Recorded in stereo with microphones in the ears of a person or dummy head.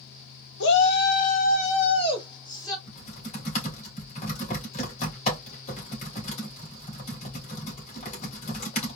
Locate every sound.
0.6 s a shout: 70° left (ahead or behind), 1.0 m; by 2.8 s 20° left (ahead or behind), 1.7 m
2.9 s typing on a keyboard: 40° left (ahead or behind), 2.5 m